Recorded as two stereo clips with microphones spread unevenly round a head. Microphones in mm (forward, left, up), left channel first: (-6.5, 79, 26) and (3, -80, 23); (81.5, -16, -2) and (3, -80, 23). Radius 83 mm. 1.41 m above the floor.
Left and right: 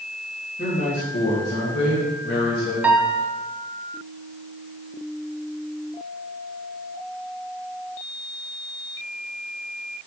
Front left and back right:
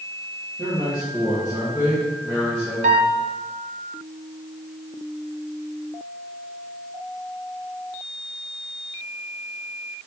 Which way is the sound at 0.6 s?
90° left.